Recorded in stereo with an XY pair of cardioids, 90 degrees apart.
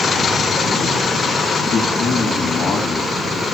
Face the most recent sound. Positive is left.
turn(degrees=55)